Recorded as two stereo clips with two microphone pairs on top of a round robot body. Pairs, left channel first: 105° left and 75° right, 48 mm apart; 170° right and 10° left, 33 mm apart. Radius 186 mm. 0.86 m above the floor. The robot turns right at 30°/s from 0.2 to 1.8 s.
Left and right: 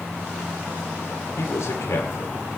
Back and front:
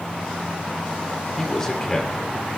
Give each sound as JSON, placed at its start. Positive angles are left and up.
{"t": 1.4, "sound": "a man speaking", "azimuth_deg": 110, "distance_m": 3.0}